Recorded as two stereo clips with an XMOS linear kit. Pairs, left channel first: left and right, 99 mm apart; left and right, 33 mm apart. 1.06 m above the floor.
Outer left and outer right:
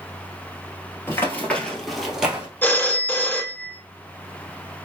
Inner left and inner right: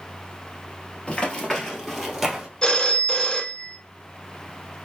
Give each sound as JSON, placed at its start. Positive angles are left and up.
{"t": 1.1, "sound": "running footsteps", "side_deg": 25, "distance_m": 1.3}
{"t": 2.6, "sound": "a phone ringing", "side_deg": 20, "distance_m": 0.5}